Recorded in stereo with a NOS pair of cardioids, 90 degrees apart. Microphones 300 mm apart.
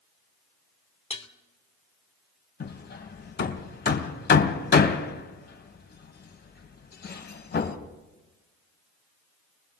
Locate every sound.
1.1 s dishes clattering: 20° left, 2.5 m
2.6 s hammering: 35° left, 2.5 m